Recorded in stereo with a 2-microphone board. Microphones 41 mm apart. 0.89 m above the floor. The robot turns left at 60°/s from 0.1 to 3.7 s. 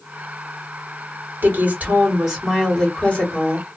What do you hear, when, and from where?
1.4 s a woman speaking: 110° right, 2 m; by 3.7 s 115° left, 2 m